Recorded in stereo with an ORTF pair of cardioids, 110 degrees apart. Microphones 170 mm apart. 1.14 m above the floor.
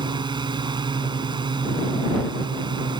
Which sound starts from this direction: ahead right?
A drone, at 0.0 s.